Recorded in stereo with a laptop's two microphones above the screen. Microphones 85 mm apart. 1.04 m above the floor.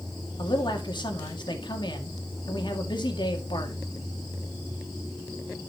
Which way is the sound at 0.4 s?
60° left (ahead or behind).